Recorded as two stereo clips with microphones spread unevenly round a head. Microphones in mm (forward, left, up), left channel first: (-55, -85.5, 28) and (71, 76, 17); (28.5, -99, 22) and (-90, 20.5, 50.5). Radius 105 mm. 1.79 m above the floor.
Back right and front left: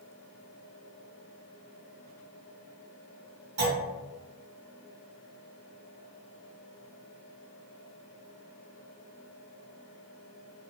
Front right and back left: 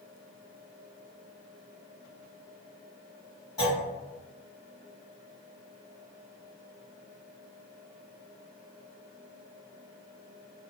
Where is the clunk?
35° left, 1.6 m.